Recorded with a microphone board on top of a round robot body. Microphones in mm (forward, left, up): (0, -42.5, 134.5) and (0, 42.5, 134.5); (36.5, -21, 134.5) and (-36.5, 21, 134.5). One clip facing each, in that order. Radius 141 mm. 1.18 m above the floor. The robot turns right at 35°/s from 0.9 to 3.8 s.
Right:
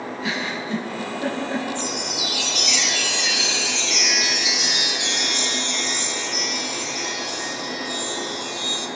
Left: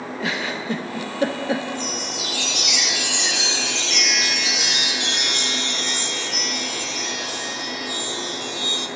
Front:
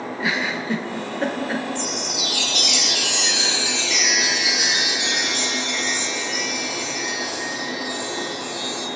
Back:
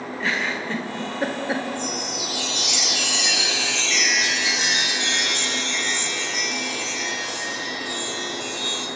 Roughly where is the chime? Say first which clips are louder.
Right 1 dB, front 1 dB; ahead right.